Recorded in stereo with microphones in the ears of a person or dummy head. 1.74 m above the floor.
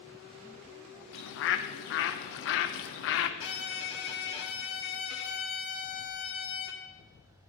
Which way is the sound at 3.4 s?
65° left (ahead or behind).